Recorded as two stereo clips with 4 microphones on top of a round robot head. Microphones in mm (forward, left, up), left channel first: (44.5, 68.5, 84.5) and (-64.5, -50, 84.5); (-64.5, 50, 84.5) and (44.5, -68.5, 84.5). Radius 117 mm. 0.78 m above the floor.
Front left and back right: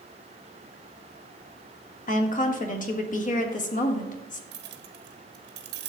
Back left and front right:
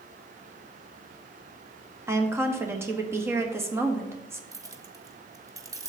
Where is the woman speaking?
25° left, 1.7 m.